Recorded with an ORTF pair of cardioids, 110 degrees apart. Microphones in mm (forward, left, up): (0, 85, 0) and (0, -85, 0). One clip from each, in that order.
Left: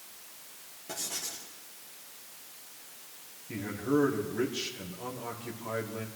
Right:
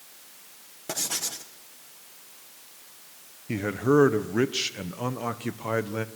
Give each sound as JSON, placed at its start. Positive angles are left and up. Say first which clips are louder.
{"t": 0.9, "sound": "writing", "louder": "right 7 dB", "azimuth_deg": -55, "distance_m": 1.5}
{"t": 3.5, "sound": "a man speaking", "louder": "right 8 dB", "azimuth_deg": -60, "distance_m": 1.4}